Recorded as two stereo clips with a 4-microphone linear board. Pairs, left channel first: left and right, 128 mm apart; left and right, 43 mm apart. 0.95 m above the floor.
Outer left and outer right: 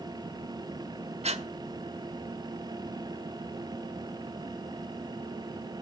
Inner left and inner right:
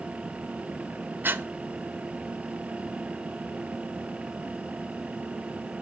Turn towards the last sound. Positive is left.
turn(degrees=-55)  # may be behind; listen again after turning